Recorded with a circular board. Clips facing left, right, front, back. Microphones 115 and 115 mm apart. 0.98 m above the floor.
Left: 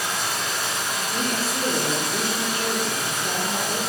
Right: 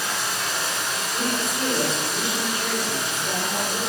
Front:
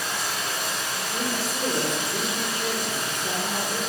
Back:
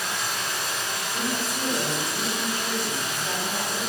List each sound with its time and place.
0.0 s running water: 45° left, 1.5 m
1.1 s a woman speaking: 40° left, 1.2 m